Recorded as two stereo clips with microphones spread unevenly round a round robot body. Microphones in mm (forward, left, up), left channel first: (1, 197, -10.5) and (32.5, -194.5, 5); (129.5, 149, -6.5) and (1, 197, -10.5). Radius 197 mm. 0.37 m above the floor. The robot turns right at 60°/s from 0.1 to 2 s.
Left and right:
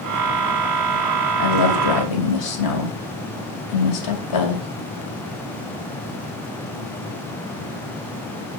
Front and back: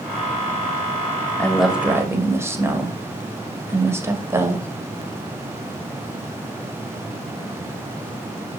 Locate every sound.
1.4 s a woman speaking: 55° left, 2.0 m; by 4.7 s 95° left, 2.0 m